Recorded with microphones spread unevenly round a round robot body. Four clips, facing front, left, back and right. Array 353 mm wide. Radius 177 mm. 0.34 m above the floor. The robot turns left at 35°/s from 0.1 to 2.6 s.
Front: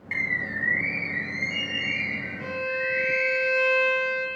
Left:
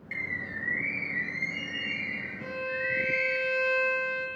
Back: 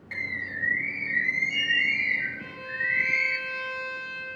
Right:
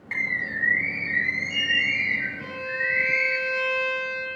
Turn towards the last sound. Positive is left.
turn(degrees=-20)